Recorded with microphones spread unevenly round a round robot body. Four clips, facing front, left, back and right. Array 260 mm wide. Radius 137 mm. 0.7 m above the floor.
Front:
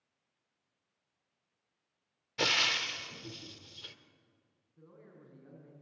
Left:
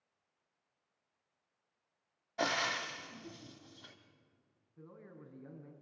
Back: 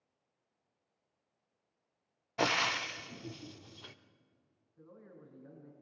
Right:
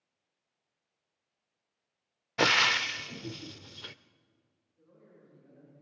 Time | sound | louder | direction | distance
2.4 | frying | right 7 dB, back 2 dB | 95° right | 0.6 m
4.8 | a man speaking | left 5 dB, back 1 dB | 60° left | 6 m